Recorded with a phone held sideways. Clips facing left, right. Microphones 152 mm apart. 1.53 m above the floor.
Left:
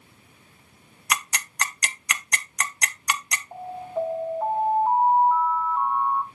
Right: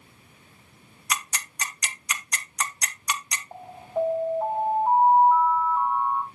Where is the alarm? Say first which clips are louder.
Even; 15° right (ahead or behind), 4.5 m.